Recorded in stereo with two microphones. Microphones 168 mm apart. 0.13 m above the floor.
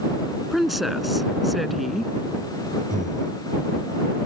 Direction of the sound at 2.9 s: 50° right (ahead or behind).